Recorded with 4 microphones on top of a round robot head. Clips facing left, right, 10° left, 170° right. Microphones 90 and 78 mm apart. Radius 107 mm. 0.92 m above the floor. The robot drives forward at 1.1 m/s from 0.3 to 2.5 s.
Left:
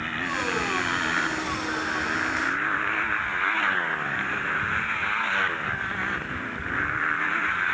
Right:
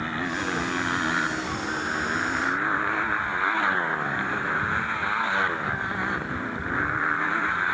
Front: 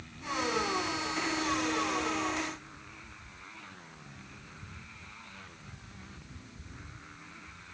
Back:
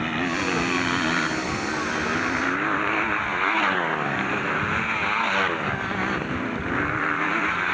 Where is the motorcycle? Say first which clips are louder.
Even, back 10 dB; 165° right.